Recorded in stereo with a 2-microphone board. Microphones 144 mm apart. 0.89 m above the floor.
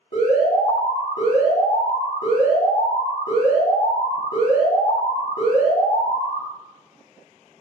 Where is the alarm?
70° left (ahead or behind), 1.8 m.